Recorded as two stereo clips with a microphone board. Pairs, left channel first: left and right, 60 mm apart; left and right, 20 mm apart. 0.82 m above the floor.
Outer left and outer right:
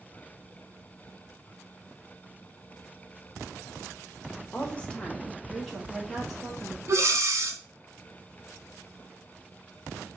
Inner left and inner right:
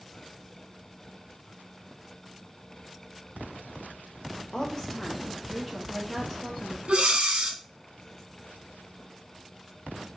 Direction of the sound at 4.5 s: 30° left (ahead or behind).